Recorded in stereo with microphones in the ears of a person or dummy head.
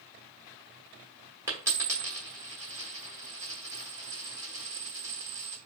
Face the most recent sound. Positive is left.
turn(degrees=-20)  # may be behind; listen again after turning